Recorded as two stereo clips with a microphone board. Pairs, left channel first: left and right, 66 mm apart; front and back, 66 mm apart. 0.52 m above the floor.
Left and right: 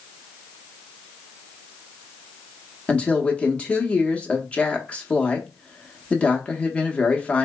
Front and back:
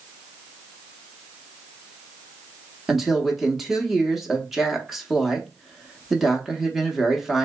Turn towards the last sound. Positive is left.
turn(degrees=100)